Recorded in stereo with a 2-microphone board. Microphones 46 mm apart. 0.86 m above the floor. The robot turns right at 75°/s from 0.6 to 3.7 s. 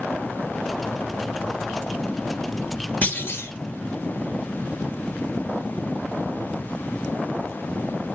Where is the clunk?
40° left, 2.5 m; by 3.5 s 75° left, 2.5 m.